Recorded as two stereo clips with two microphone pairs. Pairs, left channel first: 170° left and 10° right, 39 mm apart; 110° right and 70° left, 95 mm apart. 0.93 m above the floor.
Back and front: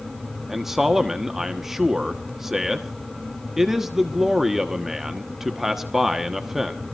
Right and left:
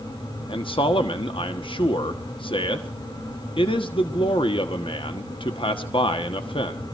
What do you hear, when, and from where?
0.5 s a man speaking: 90° right, 1.2 m